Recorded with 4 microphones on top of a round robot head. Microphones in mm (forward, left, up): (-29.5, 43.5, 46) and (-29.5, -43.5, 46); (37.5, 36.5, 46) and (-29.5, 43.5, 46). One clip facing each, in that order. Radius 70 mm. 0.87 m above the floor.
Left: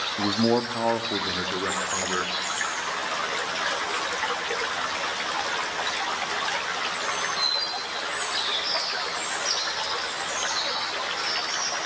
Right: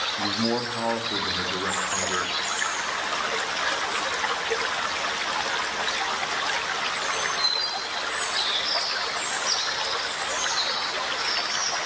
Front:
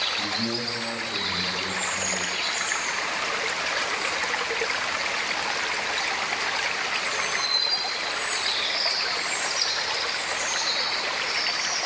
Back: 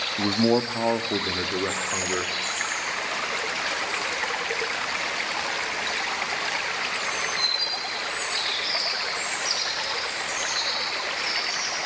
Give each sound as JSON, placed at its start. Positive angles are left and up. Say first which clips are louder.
{"t": 0.2, "sound": "a man speaking", "louder": "left 5 dB, back 8 dB", "azimuth_deg": 150, "distance_m": 1.2}